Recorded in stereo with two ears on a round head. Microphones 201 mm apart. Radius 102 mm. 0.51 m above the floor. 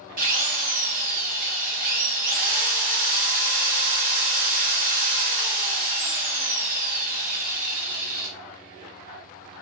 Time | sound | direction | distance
0.2 | a drill | 40° right (ahead or behind) | 0.9 m